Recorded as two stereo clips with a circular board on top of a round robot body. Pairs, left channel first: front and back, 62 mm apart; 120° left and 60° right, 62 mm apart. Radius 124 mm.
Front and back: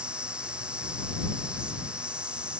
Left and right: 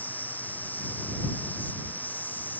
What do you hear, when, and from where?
0.0 s an insect: 125° left